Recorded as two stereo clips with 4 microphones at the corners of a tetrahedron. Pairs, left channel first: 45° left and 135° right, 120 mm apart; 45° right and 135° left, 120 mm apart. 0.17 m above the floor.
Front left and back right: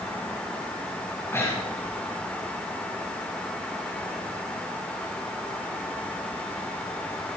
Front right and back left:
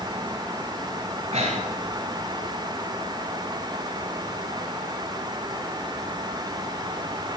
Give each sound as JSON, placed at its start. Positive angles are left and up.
{"t": 1.3, "sound": "breathing", "azimuth_deg": 115, "distance_m": 7.5}